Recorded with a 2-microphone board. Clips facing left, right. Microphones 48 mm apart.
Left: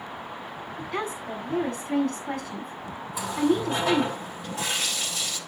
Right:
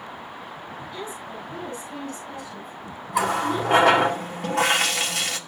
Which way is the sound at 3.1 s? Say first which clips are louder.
Right 1 dB; 70° right (ahead or behind).